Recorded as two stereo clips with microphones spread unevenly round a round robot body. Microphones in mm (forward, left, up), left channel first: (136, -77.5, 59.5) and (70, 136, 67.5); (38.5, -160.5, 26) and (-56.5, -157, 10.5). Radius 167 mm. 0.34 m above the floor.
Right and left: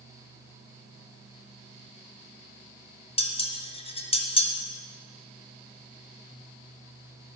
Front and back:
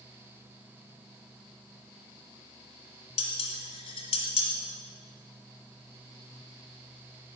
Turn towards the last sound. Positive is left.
turn(degrees=-10)